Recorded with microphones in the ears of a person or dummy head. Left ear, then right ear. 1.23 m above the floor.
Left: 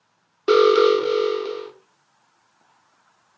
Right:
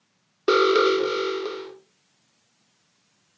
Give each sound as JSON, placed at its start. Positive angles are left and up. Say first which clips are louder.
{"t": 0.5, "sound": "an alarm", "louder": "left 4 dB", "side_deg": 5, "distance_m": 1.3}